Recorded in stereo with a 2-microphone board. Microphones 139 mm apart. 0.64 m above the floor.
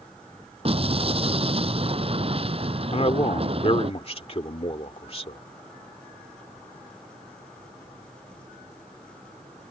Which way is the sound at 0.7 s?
45° right (ahead or behind).